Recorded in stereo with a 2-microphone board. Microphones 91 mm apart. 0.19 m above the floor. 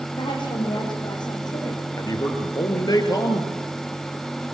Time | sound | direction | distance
0.2 | a woman speaking | 60° left (ahead or behind) | 8 m
2.0 | a man speaking | 45° left (ahead or behind) | 3.5 m